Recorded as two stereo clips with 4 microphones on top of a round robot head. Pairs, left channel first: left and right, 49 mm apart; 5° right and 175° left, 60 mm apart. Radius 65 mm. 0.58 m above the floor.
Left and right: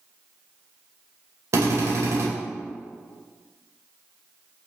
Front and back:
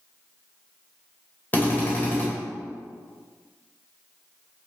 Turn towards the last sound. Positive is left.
turn(degrees=-70)